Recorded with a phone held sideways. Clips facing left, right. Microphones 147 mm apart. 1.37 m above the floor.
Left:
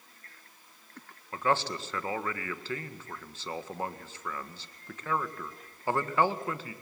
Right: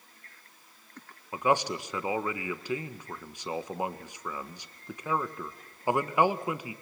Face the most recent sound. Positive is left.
turn(degrees=-15)  # may be behind; listen again after turning